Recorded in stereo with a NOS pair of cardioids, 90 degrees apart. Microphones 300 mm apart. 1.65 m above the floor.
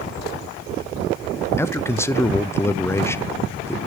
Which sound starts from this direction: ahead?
A man speaking, at 1.6 s.